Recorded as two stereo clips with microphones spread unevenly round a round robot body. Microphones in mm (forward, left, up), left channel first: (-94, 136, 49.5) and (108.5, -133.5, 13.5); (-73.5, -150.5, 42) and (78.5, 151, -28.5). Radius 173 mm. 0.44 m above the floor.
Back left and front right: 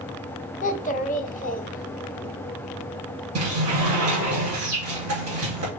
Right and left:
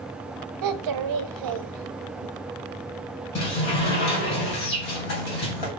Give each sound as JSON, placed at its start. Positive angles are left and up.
{"t": 0.6, "sound": "a child speaking", "azimuth_deg": 60, "distance_m": 0.9}
{"t": 3.4, "sound": "a sliding door", "azimuth_deg": -95, "distance_m": 4.0}